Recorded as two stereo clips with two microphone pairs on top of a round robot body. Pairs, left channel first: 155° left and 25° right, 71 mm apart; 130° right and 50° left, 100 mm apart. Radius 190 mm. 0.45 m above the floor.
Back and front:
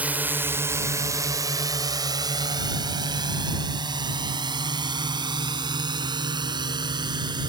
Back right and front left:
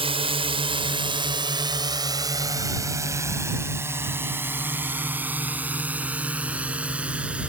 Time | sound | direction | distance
0.0 | a drone | 45° left | ?